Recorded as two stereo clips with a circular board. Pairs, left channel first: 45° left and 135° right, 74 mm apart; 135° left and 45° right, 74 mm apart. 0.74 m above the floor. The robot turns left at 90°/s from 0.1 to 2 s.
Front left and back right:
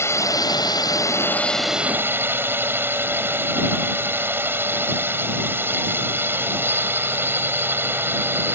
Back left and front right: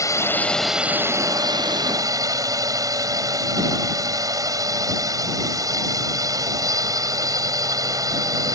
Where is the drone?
95° left; by 8.6 s 75° right.